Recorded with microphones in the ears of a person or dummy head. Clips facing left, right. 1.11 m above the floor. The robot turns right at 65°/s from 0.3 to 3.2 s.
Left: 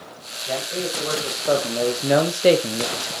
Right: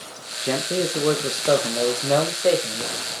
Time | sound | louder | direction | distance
0.4 | a man speaking | right 4 dB | 85° right | 0.8 m